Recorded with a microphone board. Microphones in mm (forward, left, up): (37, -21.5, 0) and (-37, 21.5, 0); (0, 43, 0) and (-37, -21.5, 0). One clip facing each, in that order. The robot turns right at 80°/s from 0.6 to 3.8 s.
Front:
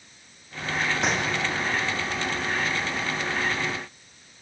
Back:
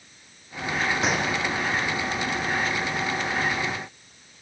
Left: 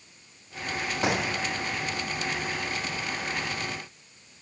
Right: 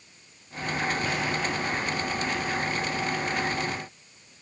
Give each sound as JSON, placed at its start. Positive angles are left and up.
{"t": 1.0, "sound": "a gunshot", "azimuth_deg": 60, "distance_m": 3.5}